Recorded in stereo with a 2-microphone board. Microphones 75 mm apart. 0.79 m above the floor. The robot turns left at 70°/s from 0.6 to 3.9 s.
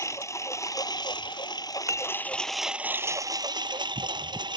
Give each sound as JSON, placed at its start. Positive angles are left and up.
{"t": 0.0, "sound": "a lawn mower", "azimuth_deg": 135}
{"t": 1.9, "sound": "dishes clattering", "side_deg": -40}